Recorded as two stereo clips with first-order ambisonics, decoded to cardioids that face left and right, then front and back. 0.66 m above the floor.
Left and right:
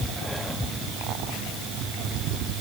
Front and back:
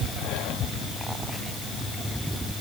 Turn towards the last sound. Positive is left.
No sound to turn to.